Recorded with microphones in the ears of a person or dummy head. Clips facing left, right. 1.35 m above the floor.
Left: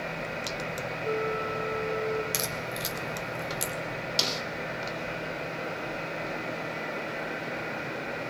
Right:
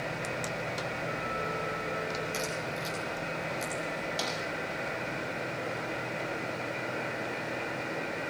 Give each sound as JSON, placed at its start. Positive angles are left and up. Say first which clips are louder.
{"t": 1.0, "sound": "a flute", "louder": "left 5 dB", "side_deg": 55, "distance_m": 7.0}
{"t": 2.3, "sound": "a crack", "louder": "even", "side_deg": 55, "distance_m": 2.5}
{"t": 4.2, "sound": "a snare drum", "louder": "left 1 dB", "side_deg": 35, "distance_m": 2.5}